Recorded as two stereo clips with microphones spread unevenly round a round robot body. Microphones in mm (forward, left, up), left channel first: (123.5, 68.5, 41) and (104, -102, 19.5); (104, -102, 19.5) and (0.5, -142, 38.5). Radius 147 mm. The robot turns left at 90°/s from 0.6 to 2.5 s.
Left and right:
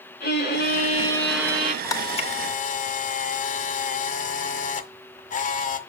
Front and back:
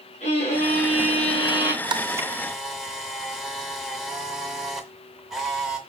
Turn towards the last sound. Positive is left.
turn(degrees=100)